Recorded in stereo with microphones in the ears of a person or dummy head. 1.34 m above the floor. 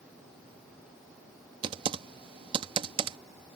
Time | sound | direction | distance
1.6 | typing on a keyboard | 30° right (ahead or behind) | ?